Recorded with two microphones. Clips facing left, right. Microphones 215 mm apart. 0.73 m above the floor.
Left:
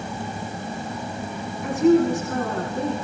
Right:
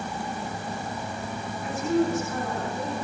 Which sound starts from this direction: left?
A woman speaking, at 1.6 s.